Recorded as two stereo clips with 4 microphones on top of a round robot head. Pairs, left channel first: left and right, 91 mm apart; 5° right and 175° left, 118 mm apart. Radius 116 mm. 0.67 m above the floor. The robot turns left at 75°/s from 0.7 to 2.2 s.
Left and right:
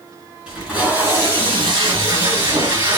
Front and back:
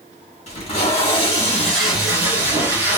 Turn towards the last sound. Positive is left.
turn(degrees=-125)